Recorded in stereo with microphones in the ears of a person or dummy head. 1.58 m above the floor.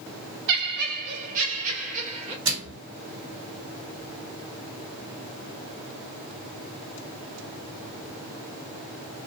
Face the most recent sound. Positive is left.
turn(degrees=-70)  # may be behind; listen again after turning